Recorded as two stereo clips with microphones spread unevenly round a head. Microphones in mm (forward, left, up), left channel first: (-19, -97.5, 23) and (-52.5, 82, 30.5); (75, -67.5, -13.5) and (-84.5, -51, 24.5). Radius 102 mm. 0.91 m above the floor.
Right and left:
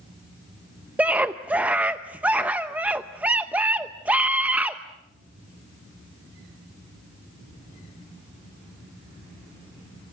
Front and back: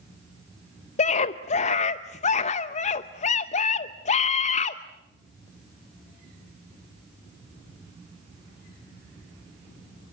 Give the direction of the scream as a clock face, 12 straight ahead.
11 o'clock.